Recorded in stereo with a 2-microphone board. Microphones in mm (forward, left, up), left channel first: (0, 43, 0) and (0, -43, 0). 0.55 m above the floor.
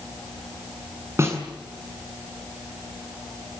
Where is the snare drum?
30° right (ahead or behind), 7 m.